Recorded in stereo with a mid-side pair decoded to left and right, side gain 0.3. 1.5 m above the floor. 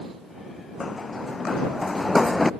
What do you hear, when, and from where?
0.8 s running footsteps: 50° left; by 2.5 s 25° left